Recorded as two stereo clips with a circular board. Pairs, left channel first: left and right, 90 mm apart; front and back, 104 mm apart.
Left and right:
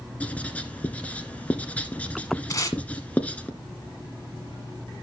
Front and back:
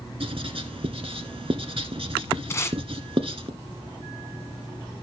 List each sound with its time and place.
0.2 s writing: 165° left, 1.3 m
2.5 s tape being pulled: 55° left, 1.5 m